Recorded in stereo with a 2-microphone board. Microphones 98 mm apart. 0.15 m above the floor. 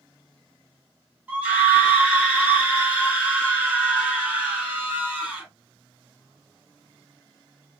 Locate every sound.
1.3 s a scream: 15° right (ahead or behind), 1.7 m